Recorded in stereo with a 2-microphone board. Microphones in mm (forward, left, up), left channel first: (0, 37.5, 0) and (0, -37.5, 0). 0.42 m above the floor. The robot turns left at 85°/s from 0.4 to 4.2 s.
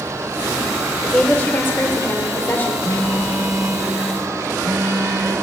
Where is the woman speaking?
Straight behind, 1.0 m; by 2.7 s 35° left, 1.0 m.